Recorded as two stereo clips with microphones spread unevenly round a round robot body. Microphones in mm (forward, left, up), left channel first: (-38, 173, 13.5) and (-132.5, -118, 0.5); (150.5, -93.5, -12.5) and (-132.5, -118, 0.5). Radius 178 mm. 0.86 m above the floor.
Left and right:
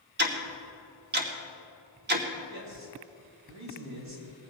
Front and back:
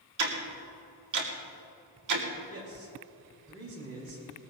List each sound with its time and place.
0.2 s ticking: 165° right, 2.5 m
2.5 s a man speaking: 140° right, 6 m